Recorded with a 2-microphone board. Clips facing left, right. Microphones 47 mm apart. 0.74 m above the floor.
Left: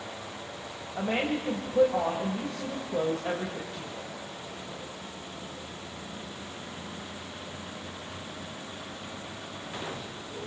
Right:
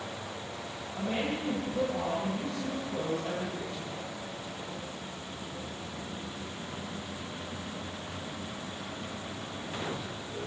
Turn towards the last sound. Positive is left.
turn(degrees=35)  # may be behind; listen again after turning